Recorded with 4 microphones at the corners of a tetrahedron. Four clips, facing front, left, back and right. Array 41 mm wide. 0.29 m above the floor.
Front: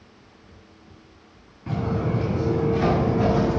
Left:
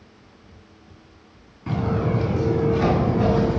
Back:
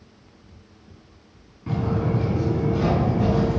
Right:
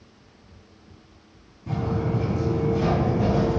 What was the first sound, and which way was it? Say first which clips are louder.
Footsteps: left 3 dB, back 1 dB; 80° left.